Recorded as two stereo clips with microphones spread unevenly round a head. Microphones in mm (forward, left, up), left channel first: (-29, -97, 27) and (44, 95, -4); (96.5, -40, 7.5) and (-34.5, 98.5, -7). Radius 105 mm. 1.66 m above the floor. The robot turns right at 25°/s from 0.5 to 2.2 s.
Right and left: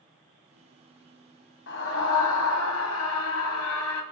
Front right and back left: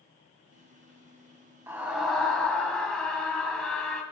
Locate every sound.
1.7 s a scream: 150° right, 1.6 m; by 4.0 s 135° right, 1.6 m